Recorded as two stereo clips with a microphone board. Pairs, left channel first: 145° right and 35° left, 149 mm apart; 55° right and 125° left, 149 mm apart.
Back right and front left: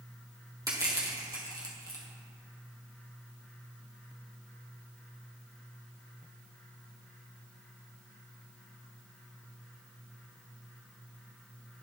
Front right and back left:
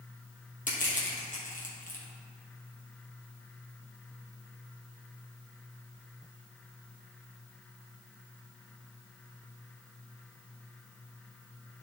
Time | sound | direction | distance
0.7 | crushing | 30° right | 2.5 m